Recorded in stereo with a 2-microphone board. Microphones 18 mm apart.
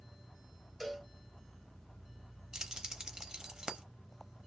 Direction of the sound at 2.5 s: 45° right (ahead or behind).